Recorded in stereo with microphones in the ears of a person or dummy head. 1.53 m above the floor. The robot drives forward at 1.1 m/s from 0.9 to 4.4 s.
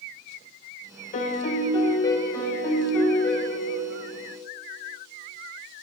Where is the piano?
40° left (ahead or behind), 1.1 m; by 4.0 s 10° left (ahead or behind), 4 m.